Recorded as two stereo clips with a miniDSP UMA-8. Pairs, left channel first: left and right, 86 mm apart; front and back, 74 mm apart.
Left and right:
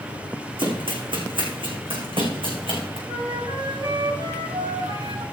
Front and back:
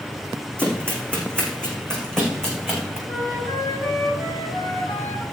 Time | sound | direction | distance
0.6 | running footsteps | 75° right | 4 m
3.1 | a flute | 60° right | 4 m